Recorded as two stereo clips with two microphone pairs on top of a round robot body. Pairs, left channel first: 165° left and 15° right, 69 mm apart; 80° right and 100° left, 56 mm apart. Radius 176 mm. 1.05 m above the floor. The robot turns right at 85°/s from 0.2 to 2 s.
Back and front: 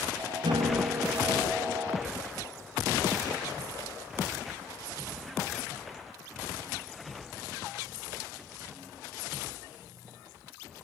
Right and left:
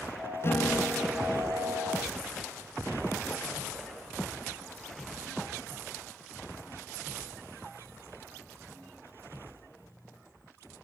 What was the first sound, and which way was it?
A guitar, 35° right.